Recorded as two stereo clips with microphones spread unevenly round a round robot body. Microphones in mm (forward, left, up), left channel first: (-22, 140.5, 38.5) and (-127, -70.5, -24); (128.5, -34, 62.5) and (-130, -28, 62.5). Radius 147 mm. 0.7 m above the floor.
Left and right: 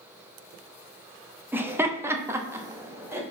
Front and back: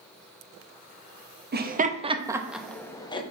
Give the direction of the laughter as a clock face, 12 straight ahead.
6 o'clock.